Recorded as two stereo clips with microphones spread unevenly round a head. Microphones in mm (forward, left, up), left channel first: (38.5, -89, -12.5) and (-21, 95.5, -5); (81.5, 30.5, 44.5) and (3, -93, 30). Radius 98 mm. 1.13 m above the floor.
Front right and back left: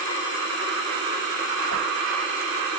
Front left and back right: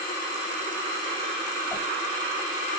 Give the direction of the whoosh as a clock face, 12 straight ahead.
1 o'clock.